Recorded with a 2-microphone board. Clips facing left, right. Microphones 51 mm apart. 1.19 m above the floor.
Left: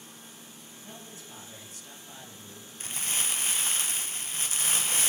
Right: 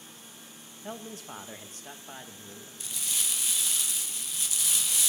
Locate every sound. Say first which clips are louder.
0.8 s a man speaking: right 8 dB; 70° right (ahead or behind), 1.7 m; by 2.7 s 20° right (ahead or behind), 2 m
2.8 s crumpling: left 3 dB; 40° left (ahead or behind), 0.8 m